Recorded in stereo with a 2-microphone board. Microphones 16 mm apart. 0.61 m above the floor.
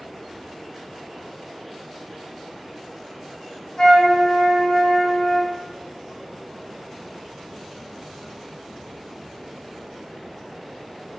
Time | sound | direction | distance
3.8 | a flute | 50° left (ahead or behind) | 1.7 m